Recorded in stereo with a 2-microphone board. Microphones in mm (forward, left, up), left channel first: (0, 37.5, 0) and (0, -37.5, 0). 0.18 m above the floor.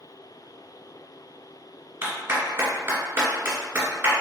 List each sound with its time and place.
2.0 s a clap: 30° right (ahead or behind), 1.5 m